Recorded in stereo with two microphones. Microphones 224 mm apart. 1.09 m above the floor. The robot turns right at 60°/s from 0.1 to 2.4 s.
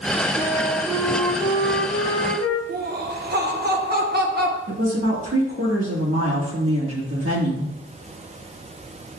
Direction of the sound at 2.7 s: 45° right (ahead or behind).